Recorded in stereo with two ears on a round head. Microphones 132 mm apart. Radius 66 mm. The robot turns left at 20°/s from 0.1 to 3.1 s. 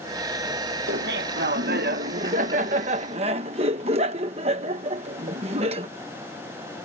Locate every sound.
0.9 s laughter: 90° right; by 5.9 s 135° right